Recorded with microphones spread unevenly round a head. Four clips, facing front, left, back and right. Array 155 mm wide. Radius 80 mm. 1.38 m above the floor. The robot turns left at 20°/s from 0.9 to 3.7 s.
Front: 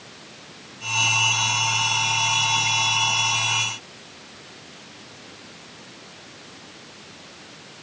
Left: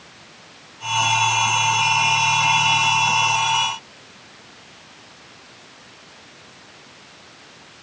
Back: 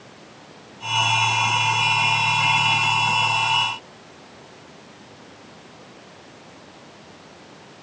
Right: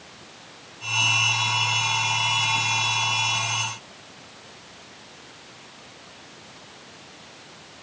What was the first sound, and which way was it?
Only background noise.